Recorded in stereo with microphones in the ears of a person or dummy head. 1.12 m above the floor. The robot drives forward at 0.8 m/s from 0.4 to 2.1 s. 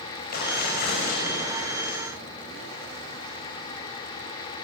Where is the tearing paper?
55° left (ahead or behind), 5.5 m; by 2.0 s 45° left (ahead or behind), 6.5 m.